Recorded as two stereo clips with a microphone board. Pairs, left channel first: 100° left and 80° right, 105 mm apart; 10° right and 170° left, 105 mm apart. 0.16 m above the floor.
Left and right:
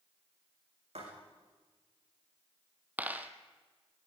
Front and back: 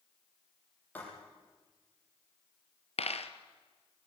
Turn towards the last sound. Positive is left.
turn(degrees=-5)